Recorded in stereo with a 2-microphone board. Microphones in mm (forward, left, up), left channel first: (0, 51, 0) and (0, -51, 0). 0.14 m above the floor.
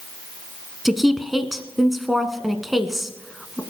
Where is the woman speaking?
Centre (ahead or behind), 1.3 m.